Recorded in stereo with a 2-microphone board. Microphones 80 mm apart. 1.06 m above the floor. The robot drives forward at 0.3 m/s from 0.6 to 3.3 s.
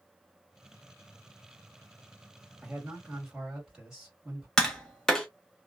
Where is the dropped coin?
I don't hear a dropped coin.